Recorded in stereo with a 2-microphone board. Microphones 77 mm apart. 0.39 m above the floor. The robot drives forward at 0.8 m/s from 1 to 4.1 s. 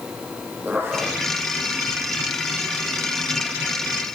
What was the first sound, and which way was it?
A zipper, 30° right (ahead or behind).